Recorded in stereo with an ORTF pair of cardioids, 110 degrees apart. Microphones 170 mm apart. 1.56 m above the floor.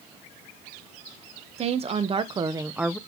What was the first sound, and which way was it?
A woman speaking, 40° right.